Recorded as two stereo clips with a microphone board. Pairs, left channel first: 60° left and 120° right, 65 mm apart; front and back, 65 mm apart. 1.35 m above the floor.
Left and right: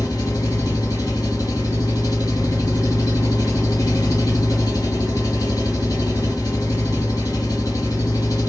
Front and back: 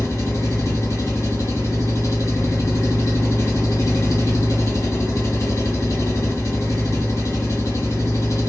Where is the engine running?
35° left, 1.4 m.